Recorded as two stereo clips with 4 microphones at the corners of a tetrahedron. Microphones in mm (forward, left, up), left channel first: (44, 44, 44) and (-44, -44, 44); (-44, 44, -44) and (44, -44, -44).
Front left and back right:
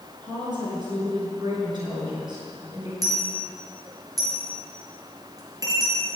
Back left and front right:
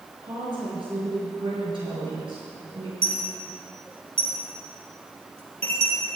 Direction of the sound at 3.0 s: 75° right.